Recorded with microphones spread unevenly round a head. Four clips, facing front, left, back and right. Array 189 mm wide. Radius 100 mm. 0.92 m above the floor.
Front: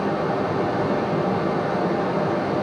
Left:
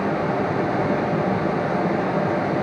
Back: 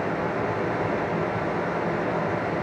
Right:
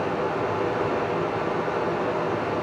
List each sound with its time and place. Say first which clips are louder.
0.0 s running water: left 3 dB, front 4 dB; 60° left, 3 m